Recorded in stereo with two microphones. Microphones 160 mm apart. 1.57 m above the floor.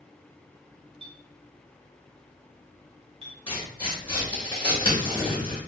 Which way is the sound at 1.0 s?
35° right (ahead or behind).